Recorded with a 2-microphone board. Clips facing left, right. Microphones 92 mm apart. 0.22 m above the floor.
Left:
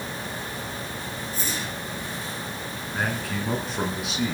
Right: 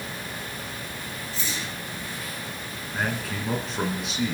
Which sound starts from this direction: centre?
A man speaking, at 2.9 s.